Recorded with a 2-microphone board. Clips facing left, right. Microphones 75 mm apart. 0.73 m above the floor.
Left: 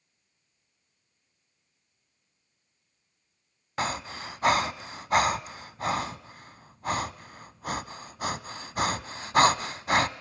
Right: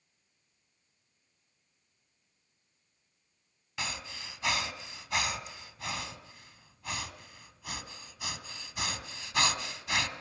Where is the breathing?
50° left (ahead or behind), 0.8 m.